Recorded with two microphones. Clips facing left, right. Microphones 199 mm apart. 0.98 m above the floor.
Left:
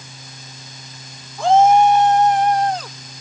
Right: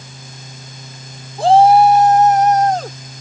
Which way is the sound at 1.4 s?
35° right (ahead or behind).